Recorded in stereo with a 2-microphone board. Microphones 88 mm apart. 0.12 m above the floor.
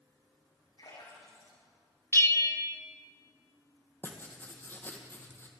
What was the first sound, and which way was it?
A splash, 75° left (ahead or behind).